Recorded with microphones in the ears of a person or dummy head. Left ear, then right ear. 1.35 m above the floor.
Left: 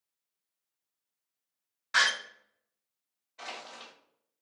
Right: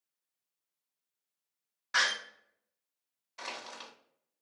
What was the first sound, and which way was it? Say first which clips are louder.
A door slam: left 3 dB; 5° left (ahead or behind).